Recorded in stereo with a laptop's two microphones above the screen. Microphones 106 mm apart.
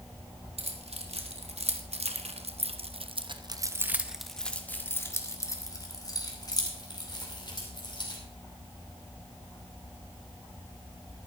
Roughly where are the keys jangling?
Right.